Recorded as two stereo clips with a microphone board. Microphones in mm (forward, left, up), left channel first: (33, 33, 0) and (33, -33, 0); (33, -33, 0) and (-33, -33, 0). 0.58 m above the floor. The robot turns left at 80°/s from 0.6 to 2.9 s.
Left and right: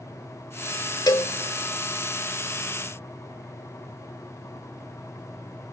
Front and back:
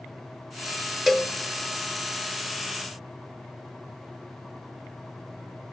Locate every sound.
1.1 s a cowbell: 95° left, 0.8 m; by 1.3 s 75° left, 0.8 m